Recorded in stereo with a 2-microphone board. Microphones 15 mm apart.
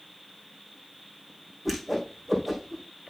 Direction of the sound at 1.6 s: Centre (ahead or behind).